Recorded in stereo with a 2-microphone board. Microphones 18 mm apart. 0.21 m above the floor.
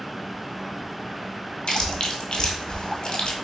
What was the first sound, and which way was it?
Chewing, 70° left (ahead or behind).